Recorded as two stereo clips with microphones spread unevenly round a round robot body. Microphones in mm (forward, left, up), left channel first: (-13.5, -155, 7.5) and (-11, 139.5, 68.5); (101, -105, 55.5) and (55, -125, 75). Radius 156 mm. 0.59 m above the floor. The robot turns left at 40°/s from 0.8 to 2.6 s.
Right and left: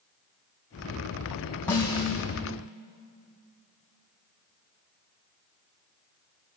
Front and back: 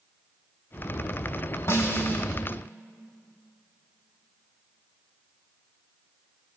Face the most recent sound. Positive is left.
turn(degrees=-45)